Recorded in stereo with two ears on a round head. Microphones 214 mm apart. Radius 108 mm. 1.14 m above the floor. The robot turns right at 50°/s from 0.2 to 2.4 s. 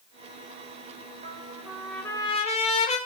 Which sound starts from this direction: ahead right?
A trumpet, at 1.2 s.